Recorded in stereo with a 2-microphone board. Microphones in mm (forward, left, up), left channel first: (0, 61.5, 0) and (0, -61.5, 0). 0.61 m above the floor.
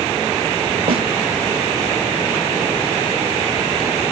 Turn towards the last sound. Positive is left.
turn(degrees=-50)  # may be behind; listen again after turning